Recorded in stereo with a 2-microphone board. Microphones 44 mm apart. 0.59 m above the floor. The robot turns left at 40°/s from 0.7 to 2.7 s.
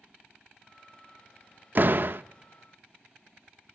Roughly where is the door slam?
Right.